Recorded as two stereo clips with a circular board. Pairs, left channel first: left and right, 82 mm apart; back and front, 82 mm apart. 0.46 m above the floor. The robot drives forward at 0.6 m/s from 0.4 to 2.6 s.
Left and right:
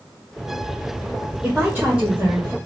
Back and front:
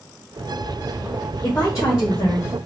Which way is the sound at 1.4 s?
150° right.